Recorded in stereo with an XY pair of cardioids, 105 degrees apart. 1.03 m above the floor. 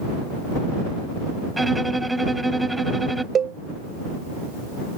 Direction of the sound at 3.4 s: 50° right.